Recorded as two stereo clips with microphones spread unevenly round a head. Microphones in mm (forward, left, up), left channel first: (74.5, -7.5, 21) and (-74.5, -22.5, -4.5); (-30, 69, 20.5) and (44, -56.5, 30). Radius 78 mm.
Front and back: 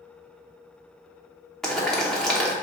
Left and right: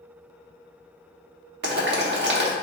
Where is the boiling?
80° right, 0.7 m.